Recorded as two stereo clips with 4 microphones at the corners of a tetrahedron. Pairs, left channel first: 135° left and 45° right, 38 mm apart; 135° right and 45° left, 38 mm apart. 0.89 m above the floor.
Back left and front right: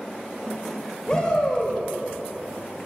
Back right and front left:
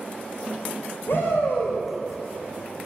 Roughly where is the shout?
Behind right.